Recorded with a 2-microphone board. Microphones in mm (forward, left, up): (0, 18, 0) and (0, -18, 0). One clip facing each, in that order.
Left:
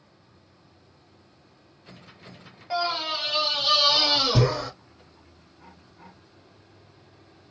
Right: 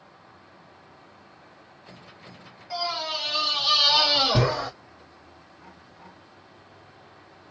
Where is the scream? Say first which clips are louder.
Left 3 dB; 30° left (ahead or behind), 1.3 m; by 4.7 s 30° right (ahead or behind), 1.4 m.